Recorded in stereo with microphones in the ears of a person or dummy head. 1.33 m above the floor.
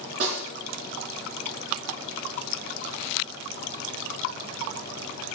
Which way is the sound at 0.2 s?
65° right (ahead or behind).